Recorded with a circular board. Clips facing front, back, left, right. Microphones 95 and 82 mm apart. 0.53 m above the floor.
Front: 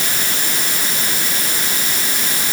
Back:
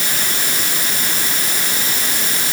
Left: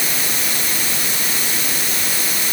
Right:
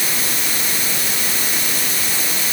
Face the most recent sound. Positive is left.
No sound to turn to.